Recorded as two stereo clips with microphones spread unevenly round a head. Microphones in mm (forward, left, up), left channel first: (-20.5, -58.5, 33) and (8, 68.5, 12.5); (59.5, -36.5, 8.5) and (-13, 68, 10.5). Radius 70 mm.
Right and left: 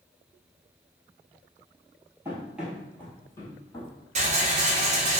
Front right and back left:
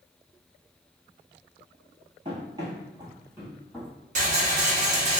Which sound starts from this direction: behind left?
Running footsteps, at 2.2 s.